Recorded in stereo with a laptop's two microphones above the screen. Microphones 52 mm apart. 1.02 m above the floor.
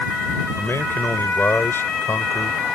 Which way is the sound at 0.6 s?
50° left (ahead or behind).